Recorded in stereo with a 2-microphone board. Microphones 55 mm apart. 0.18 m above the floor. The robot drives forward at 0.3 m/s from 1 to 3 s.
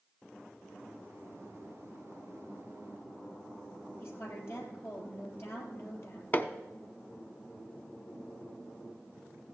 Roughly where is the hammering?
Left.